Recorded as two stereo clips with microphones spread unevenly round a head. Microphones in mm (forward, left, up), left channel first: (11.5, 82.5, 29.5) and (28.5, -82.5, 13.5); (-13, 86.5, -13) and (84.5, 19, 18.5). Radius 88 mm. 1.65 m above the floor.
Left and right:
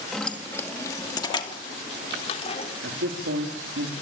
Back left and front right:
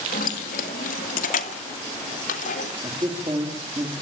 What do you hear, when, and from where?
0.1 s keys jangling: straight behind, 1.7 m; by 2.7 s 150° left, 3.5 m
2.8 s a man speaking: 100° right, 4 m